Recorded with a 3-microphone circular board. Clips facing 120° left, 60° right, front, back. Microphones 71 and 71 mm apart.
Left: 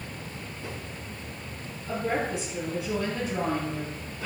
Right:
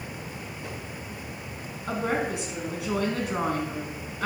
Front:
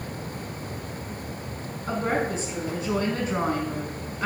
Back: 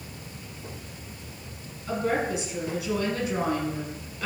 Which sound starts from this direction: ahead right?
A woman speaking, at 1.9 s.